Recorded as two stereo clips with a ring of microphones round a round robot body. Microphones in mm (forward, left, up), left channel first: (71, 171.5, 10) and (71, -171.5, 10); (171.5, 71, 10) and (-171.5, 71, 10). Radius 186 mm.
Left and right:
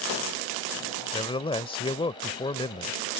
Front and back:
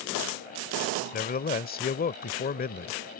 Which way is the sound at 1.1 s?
30° left.